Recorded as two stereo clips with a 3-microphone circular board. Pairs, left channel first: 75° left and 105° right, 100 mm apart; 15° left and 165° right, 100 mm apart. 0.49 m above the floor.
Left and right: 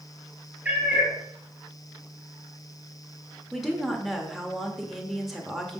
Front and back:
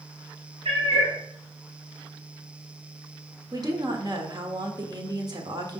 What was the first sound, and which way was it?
A cat meowing, straight behind.